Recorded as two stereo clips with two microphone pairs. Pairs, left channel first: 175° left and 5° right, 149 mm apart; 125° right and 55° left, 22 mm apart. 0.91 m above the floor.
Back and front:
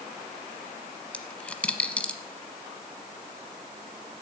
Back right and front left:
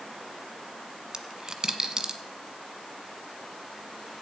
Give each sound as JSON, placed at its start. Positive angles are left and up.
{"t": 1.1, "sound": "a dropped coin", "azimuth_deg": 95, "distance_m": 1.0}